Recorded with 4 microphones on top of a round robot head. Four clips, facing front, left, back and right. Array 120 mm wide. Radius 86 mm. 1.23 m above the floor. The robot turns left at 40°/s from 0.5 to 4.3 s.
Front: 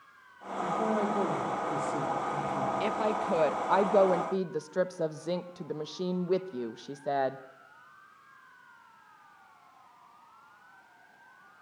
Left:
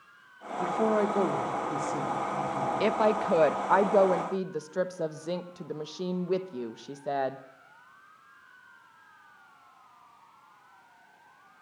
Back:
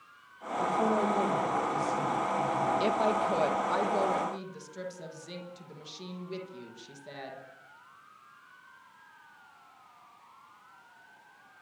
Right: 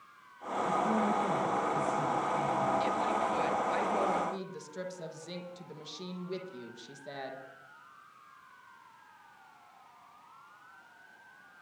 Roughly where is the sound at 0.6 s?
Left.